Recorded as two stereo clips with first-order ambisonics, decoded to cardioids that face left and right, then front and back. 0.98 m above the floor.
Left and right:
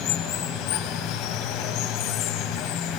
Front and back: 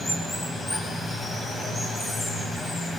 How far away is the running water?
About 2 m.